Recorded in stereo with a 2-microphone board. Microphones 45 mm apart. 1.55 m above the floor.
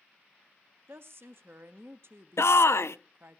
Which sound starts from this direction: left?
A shout, at 2.4 s.